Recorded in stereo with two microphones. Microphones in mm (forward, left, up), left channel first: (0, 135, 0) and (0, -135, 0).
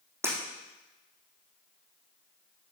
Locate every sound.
0.2 s breaking glass: 10° right (ahead or behind), 4 m